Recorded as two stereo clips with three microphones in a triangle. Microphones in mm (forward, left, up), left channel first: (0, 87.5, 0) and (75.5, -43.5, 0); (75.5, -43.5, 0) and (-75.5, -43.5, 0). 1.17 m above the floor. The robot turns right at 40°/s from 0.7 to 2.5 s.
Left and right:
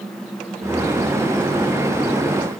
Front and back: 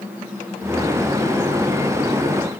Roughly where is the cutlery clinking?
I don't hear cutlery clinking.